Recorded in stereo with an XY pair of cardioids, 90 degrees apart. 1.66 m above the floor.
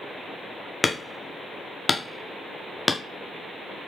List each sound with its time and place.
0.8 s hammering: 25° left, 0.9 m